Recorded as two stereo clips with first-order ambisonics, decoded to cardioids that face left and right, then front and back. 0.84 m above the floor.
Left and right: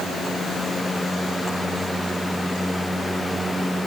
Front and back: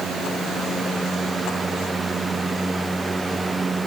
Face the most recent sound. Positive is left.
No sound to turn to.